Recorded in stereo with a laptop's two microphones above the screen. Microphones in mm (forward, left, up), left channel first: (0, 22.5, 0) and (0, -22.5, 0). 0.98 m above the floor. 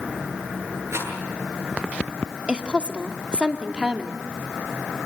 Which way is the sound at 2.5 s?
25° right (ahead or behind).